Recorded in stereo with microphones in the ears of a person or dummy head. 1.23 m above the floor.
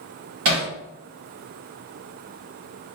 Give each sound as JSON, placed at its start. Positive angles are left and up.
{"t": 0.5, "sound": "hammering", "side_deg": -65, "distance_m": 1.4}